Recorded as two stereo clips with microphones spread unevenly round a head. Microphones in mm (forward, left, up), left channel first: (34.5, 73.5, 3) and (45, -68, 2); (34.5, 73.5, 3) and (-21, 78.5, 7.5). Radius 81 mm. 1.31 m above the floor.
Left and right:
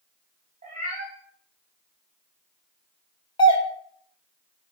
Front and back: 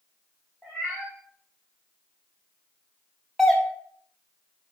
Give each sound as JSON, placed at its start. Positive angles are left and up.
{"t": 0.6, "sound": "a cat meowing", "azimuth_deg": -100, "distance_m": 1.5}
{"t": 3.4, "sound": "a doorbell", "azimuth_deg": 70, "distance_m": 1.0}